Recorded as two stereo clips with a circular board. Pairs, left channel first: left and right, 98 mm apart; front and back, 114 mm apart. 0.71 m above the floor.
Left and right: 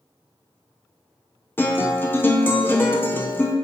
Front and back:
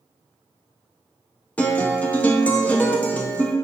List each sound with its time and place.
1.6 s a guitar: 60° left, 0.5 m